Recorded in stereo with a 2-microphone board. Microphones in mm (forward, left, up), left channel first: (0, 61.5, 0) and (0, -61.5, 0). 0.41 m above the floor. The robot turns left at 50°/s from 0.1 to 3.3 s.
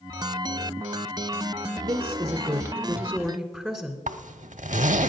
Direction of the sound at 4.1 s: 80° right.